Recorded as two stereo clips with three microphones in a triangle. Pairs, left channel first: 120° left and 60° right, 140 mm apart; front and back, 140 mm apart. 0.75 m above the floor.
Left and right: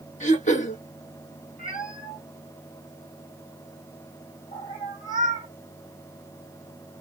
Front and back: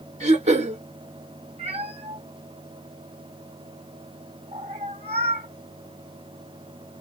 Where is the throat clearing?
145° left, 2.5 m.